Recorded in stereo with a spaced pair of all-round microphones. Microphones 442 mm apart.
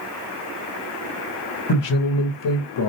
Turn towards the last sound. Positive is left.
turn(degrees=75)  # may be behind; listen again after turning